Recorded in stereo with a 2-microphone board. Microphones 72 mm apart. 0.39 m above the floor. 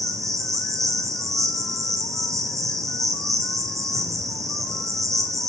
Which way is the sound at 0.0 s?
45° right (ahead or behind).